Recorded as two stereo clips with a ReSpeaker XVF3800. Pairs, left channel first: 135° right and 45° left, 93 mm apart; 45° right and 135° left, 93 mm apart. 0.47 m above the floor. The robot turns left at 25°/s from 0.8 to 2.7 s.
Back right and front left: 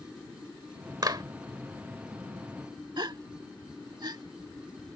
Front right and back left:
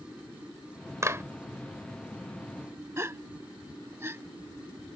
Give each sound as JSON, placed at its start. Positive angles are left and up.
{"t": 1.0, "sound": "a clap", "azimuth_deg": 80}
{"t": 3.0, "sound": "a gasp", "azimuth_deg": 75}